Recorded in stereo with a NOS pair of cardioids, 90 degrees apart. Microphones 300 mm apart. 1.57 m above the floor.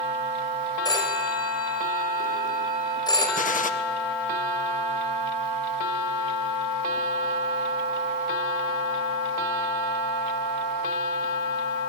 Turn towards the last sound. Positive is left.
turn(degrees=25)